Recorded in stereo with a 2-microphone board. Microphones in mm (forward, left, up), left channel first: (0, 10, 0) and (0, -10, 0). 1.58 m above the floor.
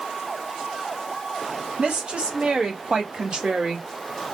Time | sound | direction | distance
1.8 | a woman speaking | 80° right | 1.4 m